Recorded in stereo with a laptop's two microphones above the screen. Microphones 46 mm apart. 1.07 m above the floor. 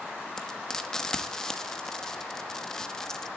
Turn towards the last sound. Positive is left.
turn(degrees=10)  # may be behind; listen again after turning